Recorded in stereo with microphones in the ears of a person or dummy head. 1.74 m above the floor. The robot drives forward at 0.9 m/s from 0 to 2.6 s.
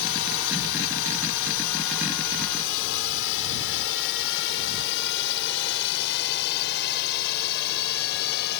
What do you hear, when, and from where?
0.0 s a drone: 70° left (ahead or behind); by 8.6 s 55° left (ahead or behind)